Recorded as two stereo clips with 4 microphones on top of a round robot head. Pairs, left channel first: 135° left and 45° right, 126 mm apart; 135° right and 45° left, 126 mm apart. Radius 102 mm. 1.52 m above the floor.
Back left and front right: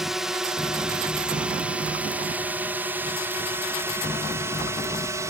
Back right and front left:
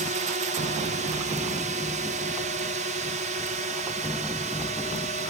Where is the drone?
40° left; by 5.3 s 20° left.